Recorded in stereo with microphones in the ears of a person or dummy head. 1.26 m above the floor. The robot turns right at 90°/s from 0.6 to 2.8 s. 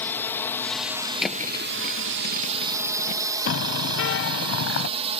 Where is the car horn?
70° left (ahead or behind).